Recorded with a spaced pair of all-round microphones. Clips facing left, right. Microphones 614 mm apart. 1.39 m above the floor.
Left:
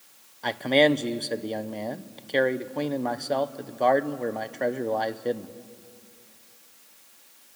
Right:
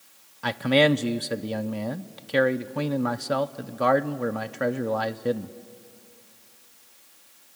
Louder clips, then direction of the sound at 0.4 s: Even; 40° right (ahead or behind).